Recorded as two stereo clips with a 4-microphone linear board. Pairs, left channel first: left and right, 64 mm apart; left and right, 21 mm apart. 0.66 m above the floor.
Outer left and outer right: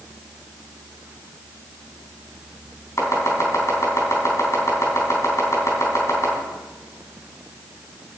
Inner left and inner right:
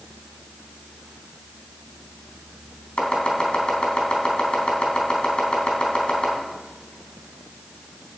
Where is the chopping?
45° left (ahead or behind), 3.5 m.